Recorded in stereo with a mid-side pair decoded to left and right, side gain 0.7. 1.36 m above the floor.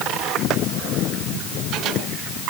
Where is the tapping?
I don't hear tapping.